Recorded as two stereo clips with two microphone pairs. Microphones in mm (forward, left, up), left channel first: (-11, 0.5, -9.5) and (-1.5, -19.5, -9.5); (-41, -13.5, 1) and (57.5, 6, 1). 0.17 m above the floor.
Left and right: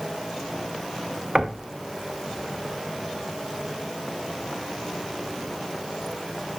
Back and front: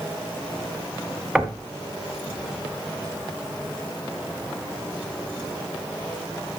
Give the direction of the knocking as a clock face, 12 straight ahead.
2 o'clock.